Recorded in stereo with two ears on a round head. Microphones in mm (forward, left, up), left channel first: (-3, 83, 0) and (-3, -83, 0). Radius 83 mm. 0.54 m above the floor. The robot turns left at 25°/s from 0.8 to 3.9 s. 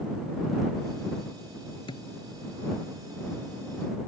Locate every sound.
1.9 s a thud: 25° left (ahead or behind)